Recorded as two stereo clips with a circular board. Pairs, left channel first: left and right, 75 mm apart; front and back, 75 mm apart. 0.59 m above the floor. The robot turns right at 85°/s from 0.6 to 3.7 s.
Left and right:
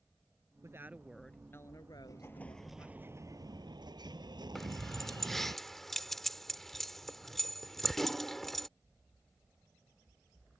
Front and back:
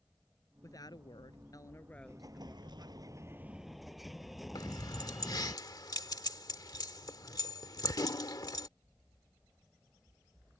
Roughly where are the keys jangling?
Ahead.